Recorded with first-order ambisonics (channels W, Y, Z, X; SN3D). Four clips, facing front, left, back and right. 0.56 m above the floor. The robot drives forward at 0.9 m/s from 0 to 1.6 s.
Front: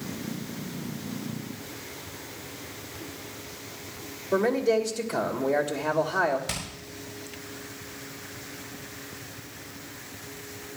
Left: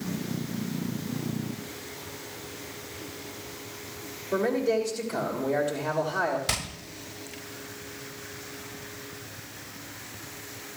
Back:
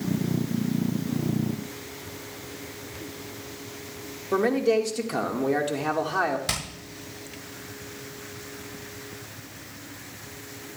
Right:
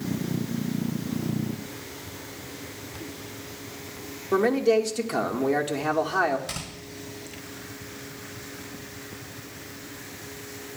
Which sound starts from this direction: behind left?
Hammering, at 6.5 s.